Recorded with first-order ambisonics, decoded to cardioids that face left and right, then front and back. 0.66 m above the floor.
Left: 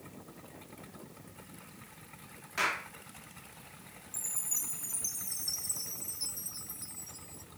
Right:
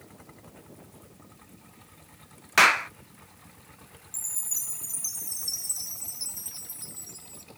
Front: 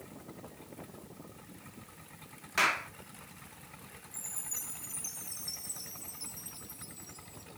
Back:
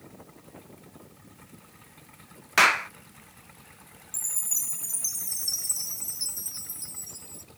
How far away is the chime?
About 0.5 m.